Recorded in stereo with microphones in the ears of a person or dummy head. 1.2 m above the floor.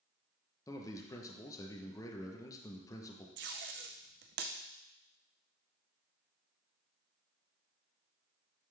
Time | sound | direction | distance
0.7 | a man speaking | 15° left (ahead or behind) | 0.7 m
3.4 | tape being pulled | 55° right (ahead or behind) | 0.6 m